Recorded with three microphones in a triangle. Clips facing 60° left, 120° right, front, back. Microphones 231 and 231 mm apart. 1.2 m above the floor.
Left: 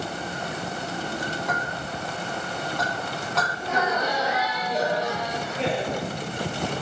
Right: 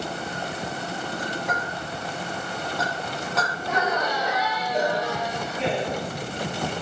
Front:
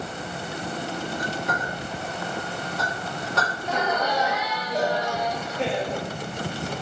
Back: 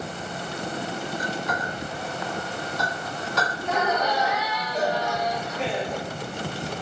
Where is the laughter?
50° right, 3 m.